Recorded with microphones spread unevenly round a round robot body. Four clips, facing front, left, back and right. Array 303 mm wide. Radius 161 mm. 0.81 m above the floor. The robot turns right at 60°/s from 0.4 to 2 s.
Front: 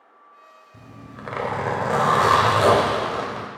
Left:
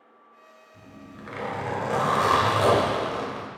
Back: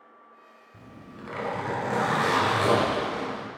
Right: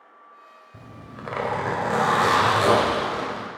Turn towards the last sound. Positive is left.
turn(degrees=0)